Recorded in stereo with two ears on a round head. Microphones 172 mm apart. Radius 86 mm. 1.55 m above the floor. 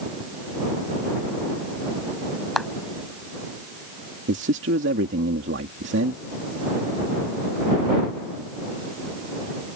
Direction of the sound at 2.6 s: Centre (ahead or behind).